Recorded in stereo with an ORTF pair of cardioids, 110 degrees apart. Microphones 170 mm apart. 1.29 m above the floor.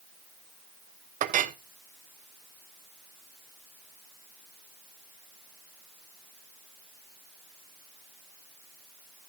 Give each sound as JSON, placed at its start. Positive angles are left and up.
{"t": 1.2, "sound": "a clink", "azimuth_deg": -50, "distance_m": 0.9}